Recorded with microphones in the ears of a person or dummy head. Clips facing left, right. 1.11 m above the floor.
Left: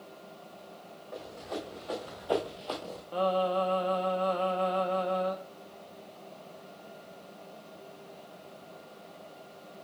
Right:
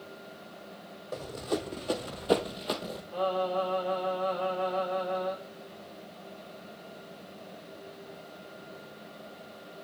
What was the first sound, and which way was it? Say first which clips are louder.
Running footsteps: right 6 dB; 50° right (ahead or behind).